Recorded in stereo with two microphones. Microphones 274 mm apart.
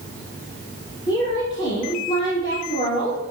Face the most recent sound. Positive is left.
turn(degrees=15)  # may be behind; listen again after turning